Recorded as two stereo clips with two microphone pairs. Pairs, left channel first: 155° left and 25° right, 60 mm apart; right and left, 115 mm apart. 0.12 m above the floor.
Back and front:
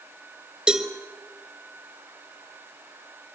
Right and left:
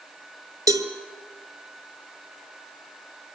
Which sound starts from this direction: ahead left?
A cowbell, at 0.7 s.